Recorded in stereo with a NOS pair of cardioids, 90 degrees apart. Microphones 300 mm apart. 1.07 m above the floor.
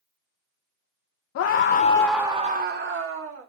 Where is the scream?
60° left, 0.7 m; by 3.5 s 50° right, 1.3 m.